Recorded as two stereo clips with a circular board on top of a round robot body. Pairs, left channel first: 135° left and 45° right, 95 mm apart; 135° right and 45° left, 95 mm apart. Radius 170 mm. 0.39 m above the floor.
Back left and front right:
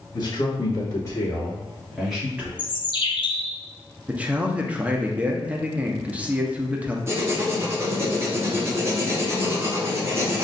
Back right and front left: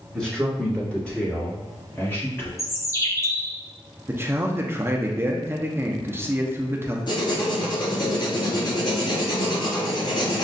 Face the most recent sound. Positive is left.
turn(degrees=-105)